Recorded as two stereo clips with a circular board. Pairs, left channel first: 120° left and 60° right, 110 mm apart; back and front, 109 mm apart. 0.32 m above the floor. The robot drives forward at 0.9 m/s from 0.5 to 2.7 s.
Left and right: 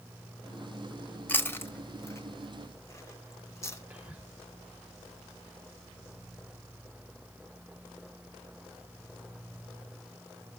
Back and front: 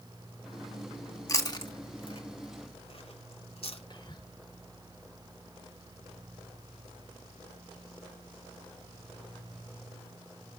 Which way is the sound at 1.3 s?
Straight behind.